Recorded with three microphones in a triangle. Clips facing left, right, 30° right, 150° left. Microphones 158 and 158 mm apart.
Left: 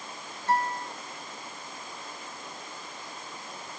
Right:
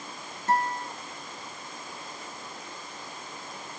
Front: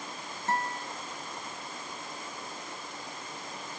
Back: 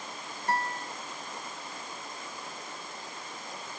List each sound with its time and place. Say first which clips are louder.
0.5 s a guitar: right 1 dB, back 1 dB; 90° right, 1.0 m